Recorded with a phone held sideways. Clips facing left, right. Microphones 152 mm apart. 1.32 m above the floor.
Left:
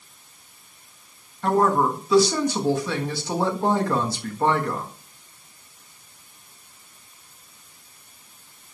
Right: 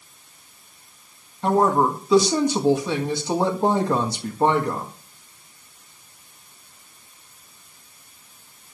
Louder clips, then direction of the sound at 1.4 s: Right 1 dB; 20° right (ahead or behind).